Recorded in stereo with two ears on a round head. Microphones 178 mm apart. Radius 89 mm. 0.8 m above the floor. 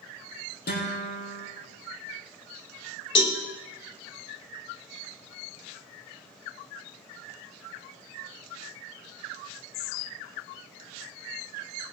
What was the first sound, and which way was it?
A guitar, 50° left (ahead or behind).